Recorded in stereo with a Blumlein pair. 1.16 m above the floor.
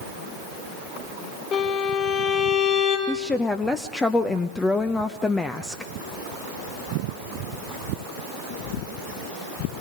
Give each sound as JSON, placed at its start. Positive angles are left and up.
{"t": 1.5, "sound": "a violin", "azimuth_deg": 35, "distance_m": 5.5}
{"t": 3.1, "sound": "a woman speaking", "azimuth_deg": 10, "distance_m": 0.8}